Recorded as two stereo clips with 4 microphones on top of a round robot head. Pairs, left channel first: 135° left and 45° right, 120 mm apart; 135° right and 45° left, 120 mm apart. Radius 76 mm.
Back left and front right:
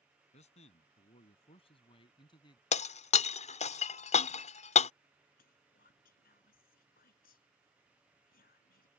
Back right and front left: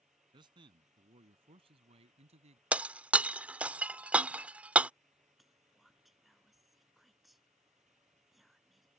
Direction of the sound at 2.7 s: 120° left.